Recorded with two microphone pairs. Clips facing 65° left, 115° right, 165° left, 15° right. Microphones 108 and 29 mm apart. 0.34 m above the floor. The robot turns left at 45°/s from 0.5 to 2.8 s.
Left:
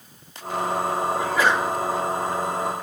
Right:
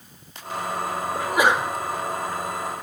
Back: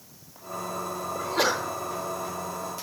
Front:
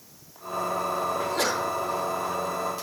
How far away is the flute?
I don't hear a flute.